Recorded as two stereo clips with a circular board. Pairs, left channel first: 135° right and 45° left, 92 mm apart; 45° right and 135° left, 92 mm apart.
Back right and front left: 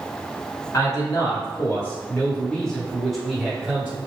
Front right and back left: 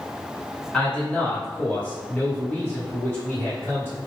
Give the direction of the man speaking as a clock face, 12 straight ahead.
4 o'clock.